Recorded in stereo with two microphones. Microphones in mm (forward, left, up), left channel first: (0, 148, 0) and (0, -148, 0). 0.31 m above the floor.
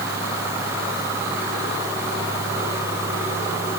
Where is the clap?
I don't hear a clap.